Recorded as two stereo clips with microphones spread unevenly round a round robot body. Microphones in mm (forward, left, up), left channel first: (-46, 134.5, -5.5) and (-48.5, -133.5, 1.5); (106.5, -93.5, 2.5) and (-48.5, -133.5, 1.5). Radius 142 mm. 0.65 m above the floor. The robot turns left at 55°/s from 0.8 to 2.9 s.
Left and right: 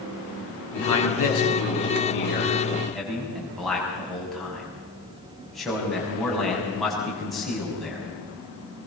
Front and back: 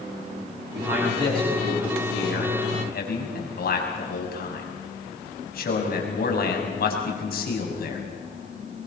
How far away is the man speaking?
About 6 m.